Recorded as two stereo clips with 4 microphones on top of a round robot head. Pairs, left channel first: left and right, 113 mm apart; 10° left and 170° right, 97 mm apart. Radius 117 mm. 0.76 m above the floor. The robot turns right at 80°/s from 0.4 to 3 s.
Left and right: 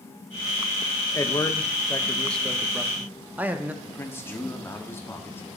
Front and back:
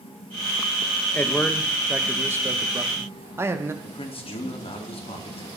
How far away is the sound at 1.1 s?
About 1.0 m.